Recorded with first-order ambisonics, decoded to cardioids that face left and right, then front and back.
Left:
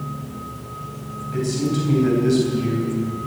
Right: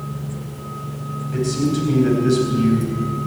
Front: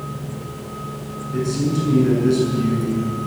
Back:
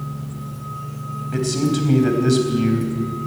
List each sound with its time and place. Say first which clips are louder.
1.3 s a man speaking: right 2 dB, back 1 dB; 175° right, 4 m